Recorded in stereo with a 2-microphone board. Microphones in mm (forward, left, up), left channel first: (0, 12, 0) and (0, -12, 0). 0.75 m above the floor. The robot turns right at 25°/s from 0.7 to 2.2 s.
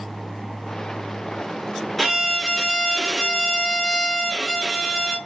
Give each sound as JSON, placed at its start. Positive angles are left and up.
{"t": 2.0, "sound": "a violin", "side_deg": 5, "distance_m": 0.8}